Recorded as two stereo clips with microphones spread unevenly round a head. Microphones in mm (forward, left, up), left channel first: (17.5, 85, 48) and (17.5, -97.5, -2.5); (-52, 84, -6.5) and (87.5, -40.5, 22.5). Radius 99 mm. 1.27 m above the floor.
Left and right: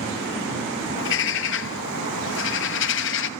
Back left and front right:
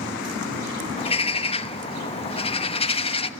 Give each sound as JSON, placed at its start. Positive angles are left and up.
{"t": 1.0, "sound": "a bird", "azimuth_deg": 75, "distance_m": 1.2}